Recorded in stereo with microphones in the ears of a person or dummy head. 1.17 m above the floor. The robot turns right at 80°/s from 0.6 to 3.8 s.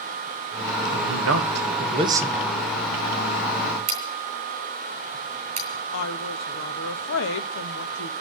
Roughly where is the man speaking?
Behind right.